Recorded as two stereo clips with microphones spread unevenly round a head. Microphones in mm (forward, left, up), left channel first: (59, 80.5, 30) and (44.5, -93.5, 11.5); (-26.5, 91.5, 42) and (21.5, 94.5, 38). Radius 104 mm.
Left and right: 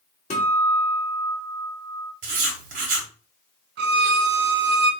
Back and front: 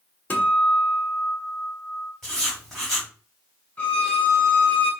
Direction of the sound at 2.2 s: 100° right.